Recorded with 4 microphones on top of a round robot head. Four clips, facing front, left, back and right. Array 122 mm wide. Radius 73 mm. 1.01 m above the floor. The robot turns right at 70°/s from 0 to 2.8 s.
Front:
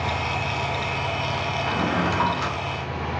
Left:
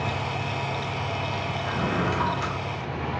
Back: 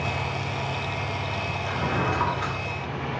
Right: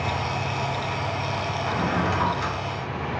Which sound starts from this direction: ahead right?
A drawer, at 1.7 s.